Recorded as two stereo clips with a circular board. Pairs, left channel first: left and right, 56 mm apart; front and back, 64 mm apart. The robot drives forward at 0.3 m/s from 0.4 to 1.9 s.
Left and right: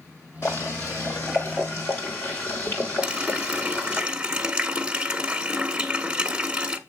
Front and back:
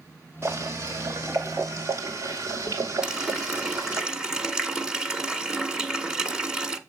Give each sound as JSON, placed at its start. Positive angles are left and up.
{"t": 0.4, "sound": "boiling", "azimuth_deg": 130, "distance_m": 2.5}
{"t": 3.0, "sound": "a running tap", "azimuth_deg": -120, "distance_m": 0.7}